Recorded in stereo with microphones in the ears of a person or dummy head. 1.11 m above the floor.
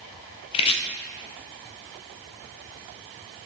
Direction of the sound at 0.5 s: 30° left (ahead or behind).